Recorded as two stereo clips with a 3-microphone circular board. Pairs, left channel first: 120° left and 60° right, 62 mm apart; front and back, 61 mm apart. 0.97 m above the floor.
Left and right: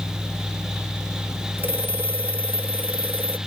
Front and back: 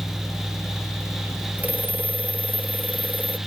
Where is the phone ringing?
115° right.